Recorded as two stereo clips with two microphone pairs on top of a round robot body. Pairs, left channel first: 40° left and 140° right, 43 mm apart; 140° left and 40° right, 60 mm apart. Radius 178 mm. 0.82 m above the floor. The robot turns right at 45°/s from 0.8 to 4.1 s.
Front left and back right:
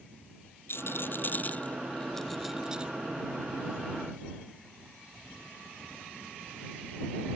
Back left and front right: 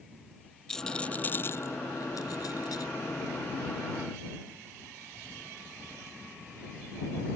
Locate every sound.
0.7 s a rattle: 60° left; by 2.9 s 155° left